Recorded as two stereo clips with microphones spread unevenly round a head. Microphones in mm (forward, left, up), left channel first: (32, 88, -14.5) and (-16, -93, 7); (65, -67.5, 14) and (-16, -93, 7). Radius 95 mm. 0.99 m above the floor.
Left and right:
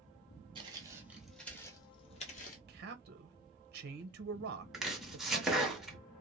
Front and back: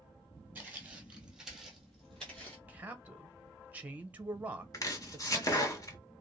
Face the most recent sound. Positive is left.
turn(degrees=-20)